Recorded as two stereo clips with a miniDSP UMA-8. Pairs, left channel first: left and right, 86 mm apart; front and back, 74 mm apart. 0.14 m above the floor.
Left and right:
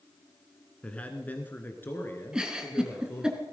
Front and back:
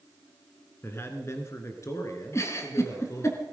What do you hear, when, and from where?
0.8 s a man speaking: 25° left, 1.3 m; by 3.3 s 35° left, 2.5 m
2.3 s a giggle: 15° right, 1.7 m